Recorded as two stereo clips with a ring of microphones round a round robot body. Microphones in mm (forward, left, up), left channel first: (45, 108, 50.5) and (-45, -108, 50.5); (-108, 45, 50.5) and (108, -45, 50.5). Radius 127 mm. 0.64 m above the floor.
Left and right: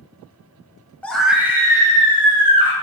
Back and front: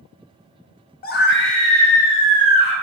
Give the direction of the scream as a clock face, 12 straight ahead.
7 o'clock.